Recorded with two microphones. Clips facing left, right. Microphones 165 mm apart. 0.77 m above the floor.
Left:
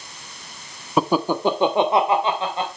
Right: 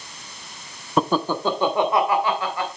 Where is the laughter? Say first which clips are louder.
Left 2 dB; 5° left (ahead or behind), 0.7 m; by 2.7 s 25° left (ahead or behind), 3 m.